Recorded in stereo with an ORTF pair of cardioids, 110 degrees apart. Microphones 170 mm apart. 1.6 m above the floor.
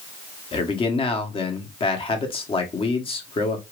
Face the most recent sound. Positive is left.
turn(degrees=35)